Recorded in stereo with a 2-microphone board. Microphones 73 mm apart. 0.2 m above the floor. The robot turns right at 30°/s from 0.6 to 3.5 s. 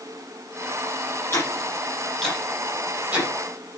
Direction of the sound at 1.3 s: 35° left (ahead or behind).